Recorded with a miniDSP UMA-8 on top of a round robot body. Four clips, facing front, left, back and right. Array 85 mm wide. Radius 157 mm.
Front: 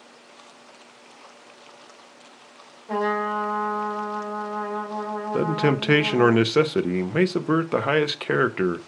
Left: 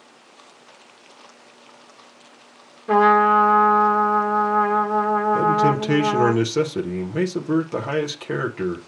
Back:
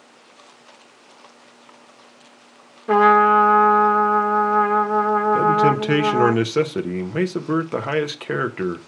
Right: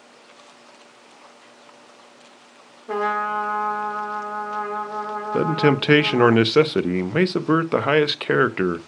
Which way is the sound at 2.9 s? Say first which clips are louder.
Left 9 dB, back 11 dB; 160° left.